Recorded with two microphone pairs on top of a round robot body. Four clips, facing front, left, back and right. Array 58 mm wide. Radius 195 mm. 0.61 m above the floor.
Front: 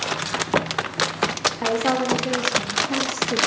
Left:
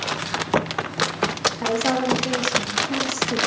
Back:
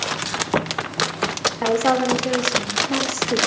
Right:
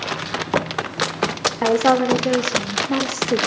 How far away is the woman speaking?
About 2.5 m.